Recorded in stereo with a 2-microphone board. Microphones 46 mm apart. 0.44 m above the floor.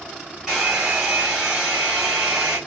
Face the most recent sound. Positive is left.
turn(degrees=-10)  # may be behind; listen again after turning